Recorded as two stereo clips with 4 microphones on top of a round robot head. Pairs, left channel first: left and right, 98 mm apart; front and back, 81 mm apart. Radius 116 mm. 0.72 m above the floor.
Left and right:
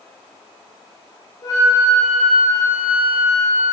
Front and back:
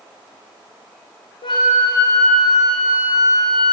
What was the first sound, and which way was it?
A flute, 25° left.